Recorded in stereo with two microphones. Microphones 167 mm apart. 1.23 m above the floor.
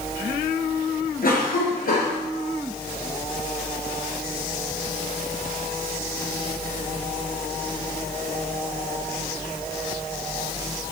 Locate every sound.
1.2 s a cough: 60° left (ahead or behind), 0.8 m